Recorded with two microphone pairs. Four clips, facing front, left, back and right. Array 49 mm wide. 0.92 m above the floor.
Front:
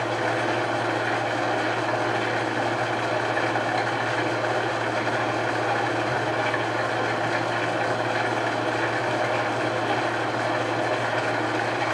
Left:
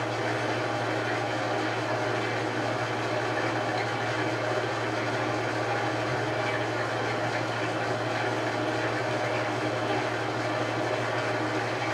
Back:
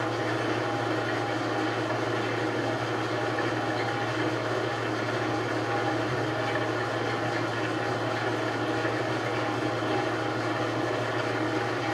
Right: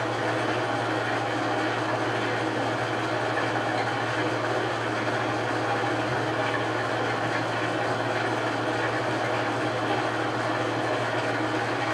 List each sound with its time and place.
0.0 s an engine running: 5° right, 4.5 m